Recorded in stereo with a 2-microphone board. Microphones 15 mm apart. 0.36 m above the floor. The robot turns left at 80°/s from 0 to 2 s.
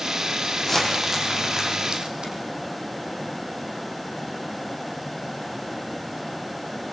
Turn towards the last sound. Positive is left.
turn(degrees=-75)  # may be behind; listen again after turning